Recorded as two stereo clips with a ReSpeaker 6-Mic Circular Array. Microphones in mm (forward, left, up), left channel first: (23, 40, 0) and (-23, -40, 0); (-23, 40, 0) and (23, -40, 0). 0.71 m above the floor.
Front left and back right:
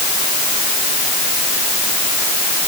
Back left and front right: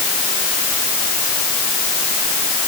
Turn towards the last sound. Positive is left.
No sound to turn to.